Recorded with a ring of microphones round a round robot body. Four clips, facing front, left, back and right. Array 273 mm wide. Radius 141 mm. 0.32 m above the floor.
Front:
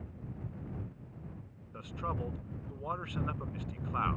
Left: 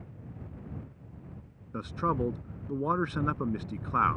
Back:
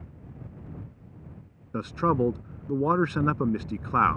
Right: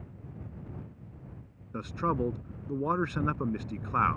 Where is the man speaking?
175° right.